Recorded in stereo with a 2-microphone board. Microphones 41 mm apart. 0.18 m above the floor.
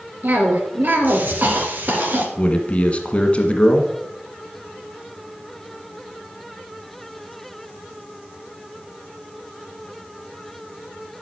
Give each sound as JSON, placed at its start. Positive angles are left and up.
{"t": 0.2, "sound": "a cough", "side_deg": -50, "distance_m": 2.5}
{"t": 2.4, "sound": "a man speaking", "side_deg": 30, "distance_m": 1.4}